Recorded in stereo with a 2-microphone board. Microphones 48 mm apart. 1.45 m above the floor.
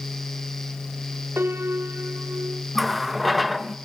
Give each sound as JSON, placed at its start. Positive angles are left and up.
{"t": 1.4, "sound": "a piano", "side_deg": -55, "distance_m": 1.7}
{"t": 2.8, "sound": "a running tap", "side_deg": 0, "distance_m": 0.8}